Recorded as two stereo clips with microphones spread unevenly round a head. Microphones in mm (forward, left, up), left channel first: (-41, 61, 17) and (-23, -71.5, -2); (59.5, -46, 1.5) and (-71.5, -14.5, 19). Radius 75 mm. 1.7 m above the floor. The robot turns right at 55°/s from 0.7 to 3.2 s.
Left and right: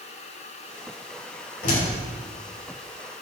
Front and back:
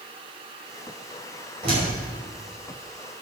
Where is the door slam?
110° left, 5.5 m; by 1.9 s 120° left, 5.5 m.